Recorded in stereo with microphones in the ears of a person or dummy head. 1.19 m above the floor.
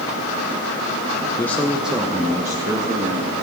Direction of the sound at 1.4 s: 20° left (ahead or behind).